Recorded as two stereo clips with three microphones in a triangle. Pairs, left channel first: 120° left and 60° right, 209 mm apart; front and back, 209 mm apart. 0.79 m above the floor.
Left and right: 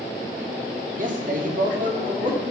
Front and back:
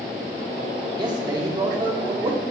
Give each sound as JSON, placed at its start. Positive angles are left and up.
{"t": 1.0, "sound": "a man speaking", "azimuth_deg": -110, "distance_m": 1.2}